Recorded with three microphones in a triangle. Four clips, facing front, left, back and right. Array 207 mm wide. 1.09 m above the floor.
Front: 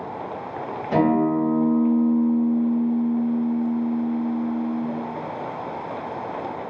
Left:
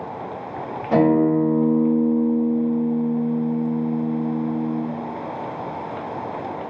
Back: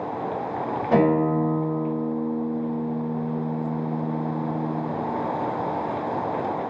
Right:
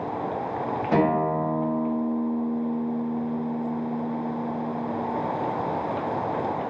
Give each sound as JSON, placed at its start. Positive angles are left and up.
{"t": 0.9, "sound": "a guitar", "azimuth_deg": 170, "distance_m": 1.5}